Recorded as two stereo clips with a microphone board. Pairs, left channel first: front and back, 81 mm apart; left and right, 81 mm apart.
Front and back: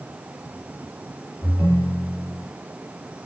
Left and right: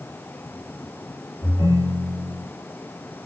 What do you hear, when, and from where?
1.4 s a ringtone: 115° left, 2.5 m